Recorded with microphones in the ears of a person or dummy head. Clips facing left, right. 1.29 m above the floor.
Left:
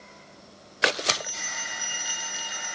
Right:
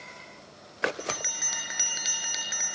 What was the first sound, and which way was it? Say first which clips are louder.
A bell: left 3 dB; 50° right (ahead or behind).